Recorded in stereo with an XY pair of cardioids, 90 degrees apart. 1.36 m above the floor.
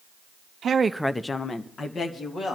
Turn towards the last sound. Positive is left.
turn(degrees=55)